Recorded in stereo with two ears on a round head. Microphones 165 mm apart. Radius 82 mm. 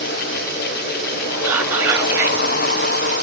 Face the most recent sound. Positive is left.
turn(degrees=-10)  # may be behind; listen again after turning